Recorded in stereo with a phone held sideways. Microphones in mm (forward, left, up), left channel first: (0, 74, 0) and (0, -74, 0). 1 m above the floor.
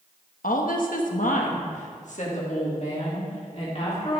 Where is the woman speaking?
75° left (ahead or behind), 1.0 m; by 4.2 s 45° left (ahead or behind), 2.5 m.